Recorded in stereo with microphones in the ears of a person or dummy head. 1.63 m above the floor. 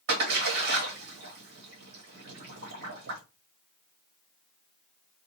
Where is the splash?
65° right (ahead or behind), 1.3 m.